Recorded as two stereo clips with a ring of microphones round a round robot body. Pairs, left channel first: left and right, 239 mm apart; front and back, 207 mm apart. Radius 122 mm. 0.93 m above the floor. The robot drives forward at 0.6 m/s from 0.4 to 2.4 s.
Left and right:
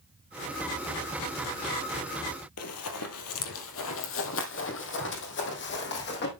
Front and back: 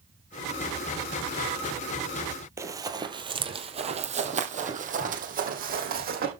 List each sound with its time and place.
2.6 s running footsteps: 105° left, 1.7 m; by 6.3 s 135° left, 3 m